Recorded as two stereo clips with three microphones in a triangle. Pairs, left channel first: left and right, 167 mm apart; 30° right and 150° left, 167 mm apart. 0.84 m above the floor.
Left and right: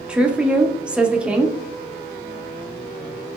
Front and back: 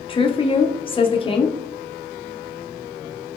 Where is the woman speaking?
10° right, 0.6 m.